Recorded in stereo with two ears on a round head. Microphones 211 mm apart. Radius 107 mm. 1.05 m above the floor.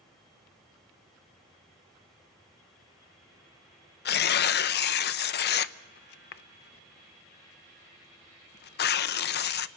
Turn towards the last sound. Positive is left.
turn(degrees=45)  # may be behind; listen again after turning